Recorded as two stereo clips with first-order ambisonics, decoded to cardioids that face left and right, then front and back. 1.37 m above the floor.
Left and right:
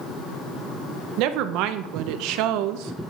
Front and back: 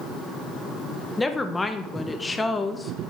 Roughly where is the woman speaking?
Right.